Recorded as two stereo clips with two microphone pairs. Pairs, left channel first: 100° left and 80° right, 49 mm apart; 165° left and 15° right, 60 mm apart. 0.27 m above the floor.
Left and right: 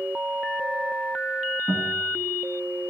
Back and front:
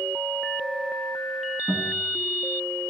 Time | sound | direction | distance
1.7 | a guitar | 145° right | 1.5 m